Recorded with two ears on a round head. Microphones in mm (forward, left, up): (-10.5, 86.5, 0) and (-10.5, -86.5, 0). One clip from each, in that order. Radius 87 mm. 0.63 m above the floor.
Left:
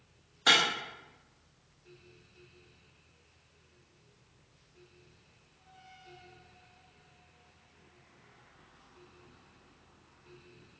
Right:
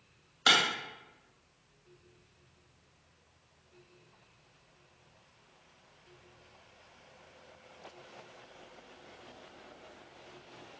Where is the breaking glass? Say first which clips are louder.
Left 1 dB; 85° right, 1.2 m.